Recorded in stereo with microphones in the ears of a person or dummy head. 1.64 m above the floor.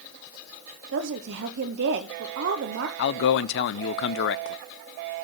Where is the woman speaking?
65° right (ahead or behind), 0.9 m.